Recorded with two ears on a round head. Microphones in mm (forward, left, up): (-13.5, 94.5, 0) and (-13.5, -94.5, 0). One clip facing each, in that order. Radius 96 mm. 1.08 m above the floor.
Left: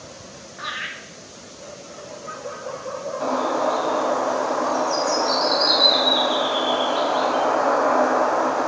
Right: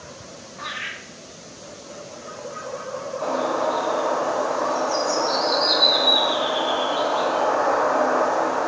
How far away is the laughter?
About 0.7 m.